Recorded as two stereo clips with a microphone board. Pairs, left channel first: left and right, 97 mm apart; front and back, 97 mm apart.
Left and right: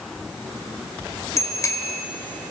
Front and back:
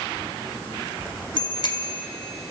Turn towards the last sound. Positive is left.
turn(degrees=35)